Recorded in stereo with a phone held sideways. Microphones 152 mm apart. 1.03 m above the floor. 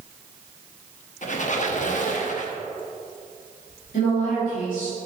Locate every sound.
1.2 s a squeak: 55° left (ahead or behind), 0.9 m
3.9 s a woman speaking: 65° left (ahead or behind), 2.5 m